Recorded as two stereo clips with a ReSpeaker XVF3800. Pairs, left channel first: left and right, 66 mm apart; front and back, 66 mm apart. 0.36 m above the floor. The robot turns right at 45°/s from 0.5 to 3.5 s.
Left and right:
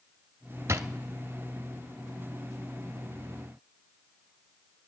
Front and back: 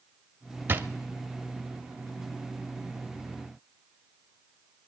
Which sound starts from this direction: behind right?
A drawer, at 0.7 s.